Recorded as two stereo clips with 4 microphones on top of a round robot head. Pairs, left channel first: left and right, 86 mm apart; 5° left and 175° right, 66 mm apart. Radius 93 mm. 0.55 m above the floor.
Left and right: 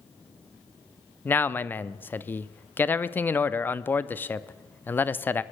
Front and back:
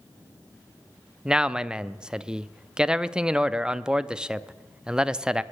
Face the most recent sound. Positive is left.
turn(degrees=120)